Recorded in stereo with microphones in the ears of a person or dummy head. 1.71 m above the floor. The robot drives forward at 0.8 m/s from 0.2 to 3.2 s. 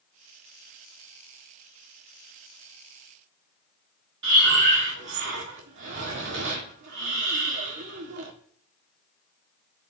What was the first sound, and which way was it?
Breathing, 60° right (ahead or behind).